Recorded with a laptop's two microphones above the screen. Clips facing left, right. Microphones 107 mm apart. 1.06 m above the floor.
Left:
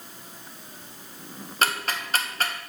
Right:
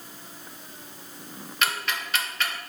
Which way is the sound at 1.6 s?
40° left (ahead or behind).